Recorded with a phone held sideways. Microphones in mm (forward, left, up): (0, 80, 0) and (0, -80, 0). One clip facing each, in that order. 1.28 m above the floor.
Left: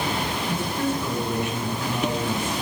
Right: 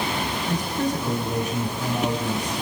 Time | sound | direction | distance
0.5 | a man speaking | 15° right (ahead or behind) | 9 m